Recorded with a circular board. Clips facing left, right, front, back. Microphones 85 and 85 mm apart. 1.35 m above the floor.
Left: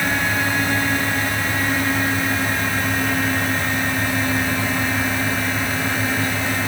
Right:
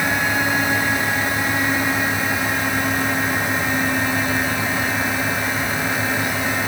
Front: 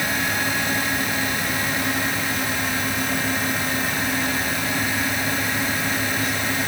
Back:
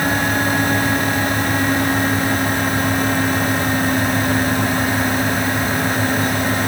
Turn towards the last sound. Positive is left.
No sound to turn to.